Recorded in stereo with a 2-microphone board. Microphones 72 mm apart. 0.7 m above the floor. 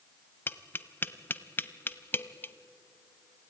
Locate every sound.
0.5 s tapping: 30° left (ahead or behind), 0.6 m